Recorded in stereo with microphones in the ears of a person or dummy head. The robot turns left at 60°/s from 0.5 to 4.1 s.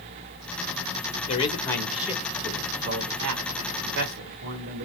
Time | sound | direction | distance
1.3 | a man speaking | 35° left | 1.6 m